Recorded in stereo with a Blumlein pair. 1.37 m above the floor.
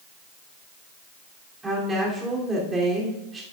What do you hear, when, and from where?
1.6 s a woman speaking: 10° right, 3 m